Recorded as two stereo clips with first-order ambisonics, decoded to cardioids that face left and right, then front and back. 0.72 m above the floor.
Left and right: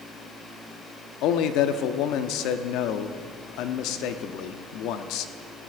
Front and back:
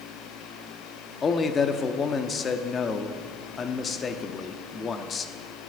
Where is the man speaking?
70° left, 0.8 m.